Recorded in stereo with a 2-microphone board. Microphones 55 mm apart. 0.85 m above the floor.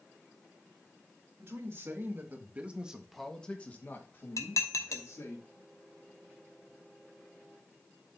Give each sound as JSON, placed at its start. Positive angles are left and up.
{"t": 1.4, "sound": "a man speaking", "side_deg": -55, "distance_m": 2.5}
{"t": 4.4, "sound": "dishes clattering", "side_deg": 75, "distance_m": 1.1}